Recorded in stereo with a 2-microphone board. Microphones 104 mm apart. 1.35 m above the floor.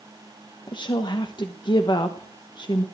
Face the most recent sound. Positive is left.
turn(degrees=50)  # may be behind; listen again after turning